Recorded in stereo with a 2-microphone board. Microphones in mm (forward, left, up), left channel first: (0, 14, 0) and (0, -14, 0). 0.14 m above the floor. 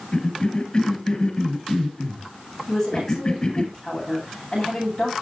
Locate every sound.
0.1 s a cough: 30° left (ahead or behind), 1.7 m
2.7 s a woman speaking: 15° left (ahead or behind), 9.5 m